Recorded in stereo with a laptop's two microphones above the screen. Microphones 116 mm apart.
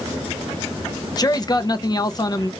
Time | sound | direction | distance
1.2 | a man speaking | 35° left (ahead or behind) | 0.7 m